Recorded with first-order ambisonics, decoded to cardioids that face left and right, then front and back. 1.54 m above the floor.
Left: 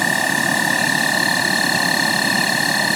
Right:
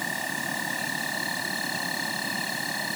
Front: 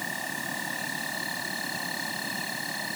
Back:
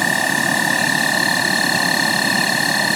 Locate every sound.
0.0 s an insect: 140° left